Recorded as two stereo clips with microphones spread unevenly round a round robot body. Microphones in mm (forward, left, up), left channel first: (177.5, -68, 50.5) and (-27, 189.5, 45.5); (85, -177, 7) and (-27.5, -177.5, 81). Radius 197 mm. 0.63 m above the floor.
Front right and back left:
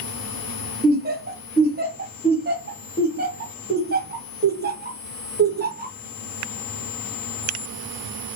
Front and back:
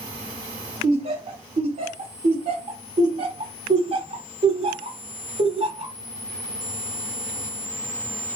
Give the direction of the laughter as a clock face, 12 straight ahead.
8 o'clock.